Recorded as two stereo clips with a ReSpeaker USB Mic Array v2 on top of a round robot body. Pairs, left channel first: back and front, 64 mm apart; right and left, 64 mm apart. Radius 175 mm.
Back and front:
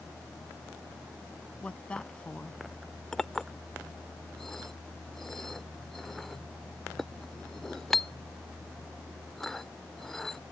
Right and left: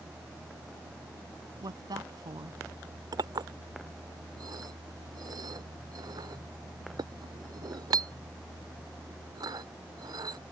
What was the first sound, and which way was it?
A woman speaking, 105° left.